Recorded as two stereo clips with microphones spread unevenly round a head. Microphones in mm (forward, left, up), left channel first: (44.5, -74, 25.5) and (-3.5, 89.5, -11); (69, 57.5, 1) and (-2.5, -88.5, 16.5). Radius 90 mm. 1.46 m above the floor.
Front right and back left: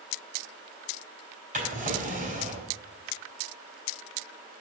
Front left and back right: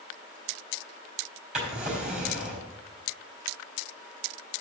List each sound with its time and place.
1.5 s a drawer: 160° left, 3.5 m